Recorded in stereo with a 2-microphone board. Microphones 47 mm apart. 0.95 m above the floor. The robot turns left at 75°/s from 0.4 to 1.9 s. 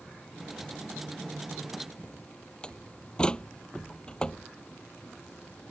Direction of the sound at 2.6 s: 20° left (ahead or behind).